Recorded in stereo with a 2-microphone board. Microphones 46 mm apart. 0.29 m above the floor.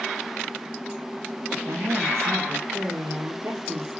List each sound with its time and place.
1.6 s a woman speaking: 75° right (ahead or behind), 6 m; by 4.0 s 60° right (ahead or behind), 6.5 m